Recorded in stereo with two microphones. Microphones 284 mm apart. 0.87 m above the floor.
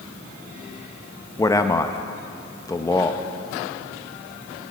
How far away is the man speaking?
About 0.5 m.